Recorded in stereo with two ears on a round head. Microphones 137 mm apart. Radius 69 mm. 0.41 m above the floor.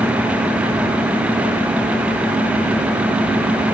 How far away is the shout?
I don't hear a shout.